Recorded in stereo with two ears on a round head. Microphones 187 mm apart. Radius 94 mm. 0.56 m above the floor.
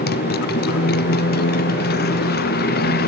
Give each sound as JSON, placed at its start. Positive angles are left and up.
{"t": 0.0, "sound": "a motorcycle", "side_deg": 50}